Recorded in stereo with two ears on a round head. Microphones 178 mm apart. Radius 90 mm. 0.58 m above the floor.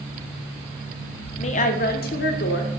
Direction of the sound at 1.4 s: 30° left (ahead or behind).